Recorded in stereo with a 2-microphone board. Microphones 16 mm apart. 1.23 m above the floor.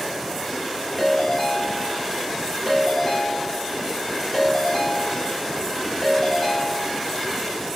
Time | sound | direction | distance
1.0 | a ringtone | 5° left (ahead or behind) | 1.9 m